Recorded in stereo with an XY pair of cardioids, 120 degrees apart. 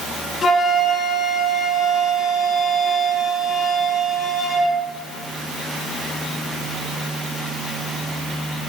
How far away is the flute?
About 1.4 m.